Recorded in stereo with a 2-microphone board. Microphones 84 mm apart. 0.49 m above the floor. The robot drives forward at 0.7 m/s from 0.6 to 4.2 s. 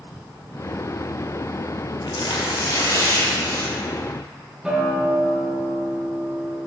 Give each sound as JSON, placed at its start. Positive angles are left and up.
{"t": 2.1, "sound": "tearing paper", "side_deg": 80, "distance_m": 0.7}
{"t": 4.6, "sound": "a guitar", "side_deg": -10, "distance_m": 1.2}